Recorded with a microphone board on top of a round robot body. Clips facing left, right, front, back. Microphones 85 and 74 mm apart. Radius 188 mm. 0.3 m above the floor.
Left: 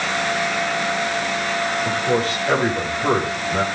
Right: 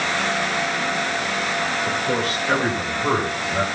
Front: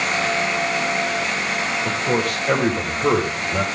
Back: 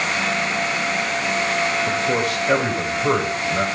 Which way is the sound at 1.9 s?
35° left.